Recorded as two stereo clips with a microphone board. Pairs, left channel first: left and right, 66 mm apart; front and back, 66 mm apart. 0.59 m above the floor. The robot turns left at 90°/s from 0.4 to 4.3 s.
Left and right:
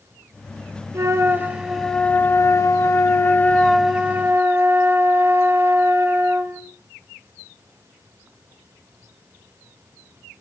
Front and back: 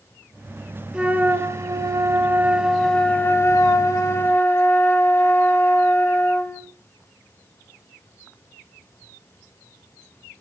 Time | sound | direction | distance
0.9 | a flute | 100° right | 1.5 m